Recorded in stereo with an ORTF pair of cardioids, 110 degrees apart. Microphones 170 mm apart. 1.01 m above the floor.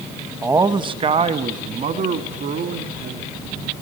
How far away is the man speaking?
About 0.9 m.